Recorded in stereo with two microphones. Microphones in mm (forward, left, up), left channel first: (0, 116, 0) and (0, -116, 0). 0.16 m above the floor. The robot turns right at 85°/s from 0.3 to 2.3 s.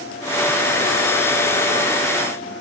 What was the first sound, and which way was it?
Only background noise.